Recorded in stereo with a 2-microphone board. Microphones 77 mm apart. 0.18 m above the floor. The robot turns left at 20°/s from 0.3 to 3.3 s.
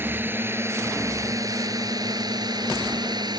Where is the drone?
30° right; by 3.4 s 90° right.